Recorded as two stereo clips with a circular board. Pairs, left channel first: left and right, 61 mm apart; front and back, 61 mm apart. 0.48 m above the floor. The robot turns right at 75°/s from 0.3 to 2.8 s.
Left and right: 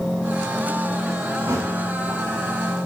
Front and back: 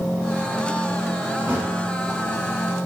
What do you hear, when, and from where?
1.4 s a thud: 130° right, 3 m; by 1.8 s 105° right, 3 m